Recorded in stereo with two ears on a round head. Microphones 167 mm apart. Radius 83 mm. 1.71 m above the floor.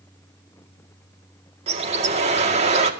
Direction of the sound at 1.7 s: 35° right (ahead or behind).